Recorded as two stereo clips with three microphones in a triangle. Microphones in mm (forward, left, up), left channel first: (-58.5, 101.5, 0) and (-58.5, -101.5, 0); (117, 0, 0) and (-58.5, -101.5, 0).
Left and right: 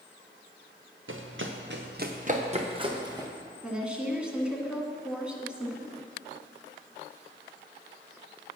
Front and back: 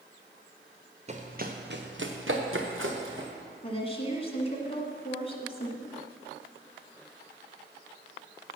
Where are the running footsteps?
95° right, 1.5 m; by 3.3 s 165° right, 2.5 m.